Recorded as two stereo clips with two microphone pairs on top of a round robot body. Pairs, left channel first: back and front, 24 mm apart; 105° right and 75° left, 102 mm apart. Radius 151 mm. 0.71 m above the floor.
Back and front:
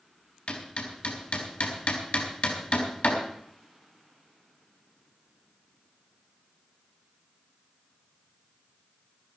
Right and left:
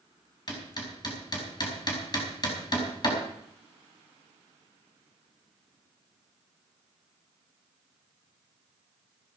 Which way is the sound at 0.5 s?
155° right.